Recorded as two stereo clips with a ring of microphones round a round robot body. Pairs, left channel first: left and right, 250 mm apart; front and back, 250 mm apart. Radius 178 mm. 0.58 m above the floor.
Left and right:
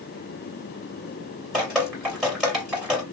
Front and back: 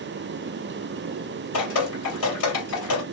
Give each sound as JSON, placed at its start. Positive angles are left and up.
{"t": 1.5, "sound": "dripping", "azimuth_deg": 0, "distance_m": 2.5}